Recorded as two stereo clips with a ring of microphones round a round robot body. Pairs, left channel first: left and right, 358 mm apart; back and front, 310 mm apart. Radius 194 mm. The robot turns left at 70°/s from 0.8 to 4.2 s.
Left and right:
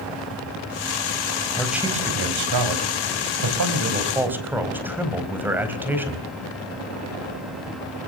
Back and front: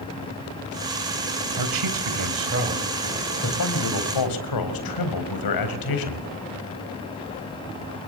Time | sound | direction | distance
1.6 | a man speaking | 10° left | 4 m